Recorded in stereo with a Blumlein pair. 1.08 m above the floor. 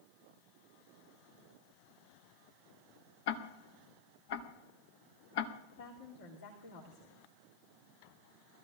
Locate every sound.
3.3 s ticking: 50° left, 1.1 m
5.7 s a woman speaking: 60° left, 3 m